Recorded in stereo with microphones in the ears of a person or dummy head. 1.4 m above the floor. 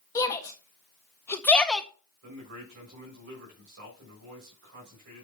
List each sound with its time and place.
0.1 s a shout: 20° left (ahead or behind), 1.8 m; by 1.9 s centre (ahead or behind), 0.6 m
2.2 s a man speaking: 65° right (ahead or behind), 6 m